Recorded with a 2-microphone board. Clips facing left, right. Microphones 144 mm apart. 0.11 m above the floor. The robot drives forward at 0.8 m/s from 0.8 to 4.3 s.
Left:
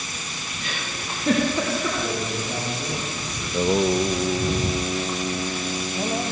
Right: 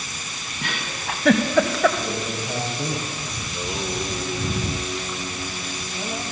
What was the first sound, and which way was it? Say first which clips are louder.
A giggle: right 4 dB; 60° right (ahead or behind).